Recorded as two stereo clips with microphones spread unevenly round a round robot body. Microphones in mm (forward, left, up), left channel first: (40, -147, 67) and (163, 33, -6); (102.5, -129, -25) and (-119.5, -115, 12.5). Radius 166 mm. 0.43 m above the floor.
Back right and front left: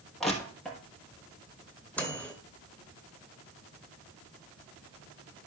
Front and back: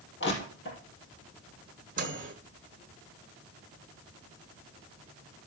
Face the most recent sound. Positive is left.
turn(degrees=130)